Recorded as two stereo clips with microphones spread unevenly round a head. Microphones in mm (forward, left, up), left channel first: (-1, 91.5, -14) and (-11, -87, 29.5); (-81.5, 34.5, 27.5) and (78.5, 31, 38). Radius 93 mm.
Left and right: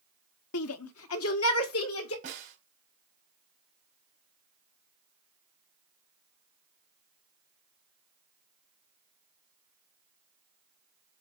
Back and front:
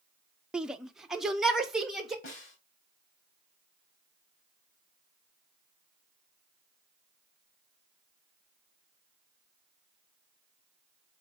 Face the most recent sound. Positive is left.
turn(degrees=-135)